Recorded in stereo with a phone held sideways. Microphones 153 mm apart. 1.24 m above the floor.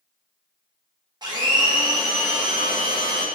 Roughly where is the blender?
Right.